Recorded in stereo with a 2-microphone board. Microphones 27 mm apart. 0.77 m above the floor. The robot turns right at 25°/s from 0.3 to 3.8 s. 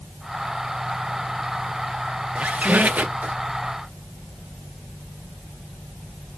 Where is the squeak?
50° right (ahead or behind), 0.6 m; by 3.3 s 70° right (ahead or behind), 0.6 m.